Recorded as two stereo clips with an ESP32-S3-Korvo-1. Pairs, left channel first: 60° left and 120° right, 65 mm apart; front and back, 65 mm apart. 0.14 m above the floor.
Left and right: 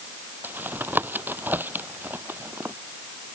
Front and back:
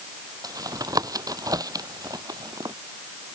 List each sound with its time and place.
0.4 s tapping: straight behind